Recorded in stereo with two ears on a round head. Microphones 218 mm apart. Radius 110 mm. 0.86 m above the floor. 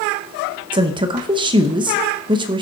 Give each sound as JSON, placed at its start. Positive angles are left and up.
{"t": 0.7, "sound": "a woman speaking", "side_deg": -20, "distance_m": 0.8}